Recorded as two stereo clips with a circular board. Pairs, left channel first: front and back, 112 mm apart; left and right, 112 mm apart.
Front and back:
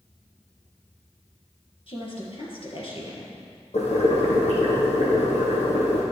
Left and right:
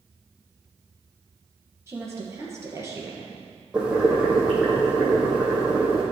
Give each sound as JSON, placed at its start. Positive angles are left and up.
{"t": 1.9, "sound": "a woman speaking", "azimuth_deg": -25, "distance_m": 3.0}
{"t": 3.7, "sound": "boiling", "azimuth_deg": -10, "distance_m": 2.5}